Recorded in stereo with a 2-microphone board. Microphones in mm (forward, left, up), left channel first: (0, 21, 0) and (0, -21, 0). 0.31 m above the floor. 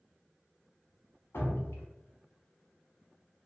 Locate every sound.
1.3 s dripping: 80° left, 0.7 m